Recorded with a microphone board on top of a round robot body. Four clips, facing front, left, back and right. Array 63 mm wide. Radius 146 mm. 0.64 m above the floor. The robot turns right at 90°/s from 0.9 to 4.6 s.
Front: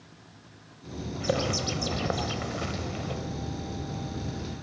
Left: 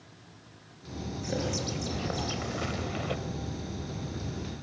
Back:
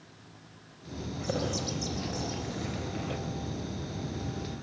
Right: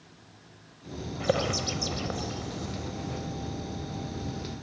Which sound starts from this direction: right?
A bird, at 1.2 s.